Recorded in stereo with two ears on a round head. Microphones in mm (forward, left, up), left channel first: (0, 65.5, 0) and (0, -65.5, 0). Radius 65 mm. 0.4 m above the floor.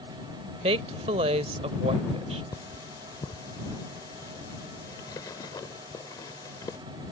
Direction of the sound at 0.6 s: 45° right (ahead or behind).